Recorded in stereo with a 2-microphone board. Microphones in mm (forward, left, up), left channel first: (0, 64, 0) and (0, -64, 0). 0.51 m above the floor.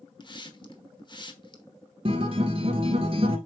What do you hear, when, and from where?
0.2 s a hiss: 35° left (ahead or behind), 1.1 m
2.0 s a guitar: 45° right (ahead or behind), 1.6 m